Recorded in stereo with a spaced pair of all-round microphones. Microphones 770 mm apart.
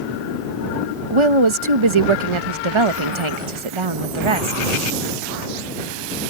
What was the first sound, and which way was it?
A woman speaking, 40° right (ahead or behind).